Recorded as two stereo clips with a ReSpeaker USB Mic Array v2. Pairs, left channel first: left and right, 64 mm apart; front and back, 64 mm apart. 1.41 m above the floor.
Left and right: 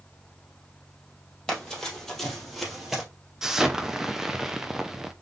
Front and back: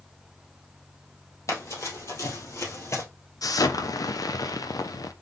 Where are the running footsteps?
15° left, 2.5 m; by 3.0 s 10° right, 2 m.